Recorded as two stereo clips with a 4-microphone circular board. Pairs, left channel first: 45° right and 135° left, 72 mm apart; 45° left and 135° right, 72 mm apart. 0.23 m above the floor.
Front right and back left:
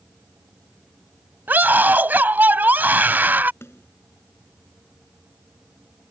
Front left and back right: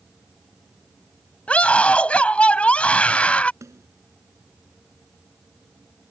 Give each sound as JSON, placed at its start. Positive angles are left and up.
{"t": 1.5, "sound": "a scream", "azimuth_deg": 95}
{"t": 3.6, "sound": "a snare drum", "azimuth_deg": -100}